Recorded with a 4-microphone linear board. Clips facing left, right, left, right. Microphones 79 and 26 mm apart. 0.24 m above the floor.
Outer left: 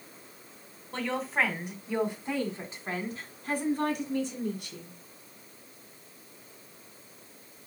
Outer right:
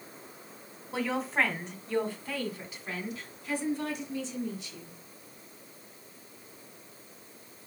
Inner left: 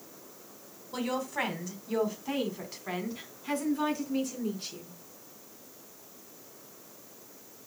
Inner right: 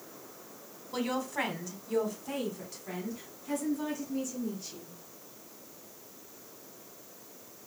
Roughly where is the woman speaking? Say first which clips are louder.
Even, even; centre.